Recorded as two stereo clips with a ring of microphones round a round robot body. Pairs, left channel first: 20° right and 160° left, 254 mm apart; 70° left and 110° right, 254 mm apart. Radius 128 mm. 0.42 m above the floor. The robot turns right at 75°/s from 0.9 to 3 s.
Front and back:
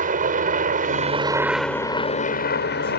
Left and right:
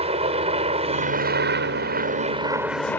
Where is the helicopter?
165° right; by 3.0 s 10° right.